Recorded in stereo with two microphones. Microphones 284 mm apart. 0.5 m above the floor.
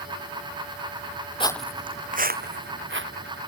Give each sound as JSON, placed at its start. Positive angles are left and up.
{"t": 1.4, "sound": "footsteps", "side_deg": 20}